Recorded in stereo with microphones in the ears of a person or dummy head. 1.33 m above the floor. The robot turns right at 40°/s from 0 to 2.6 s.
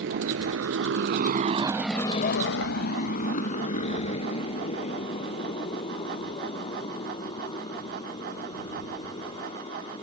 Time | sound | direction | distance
0.0 | a motorcycle | 65° right (ahead or behind) | ?